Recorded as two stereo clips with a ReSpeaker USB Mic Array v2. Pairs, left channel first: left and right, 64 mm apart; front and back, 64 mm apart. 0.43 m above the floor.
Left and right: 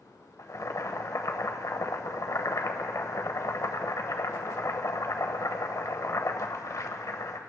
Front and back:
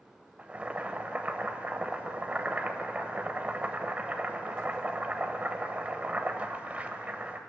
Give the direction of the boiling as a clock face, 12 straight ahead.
8 o'clock.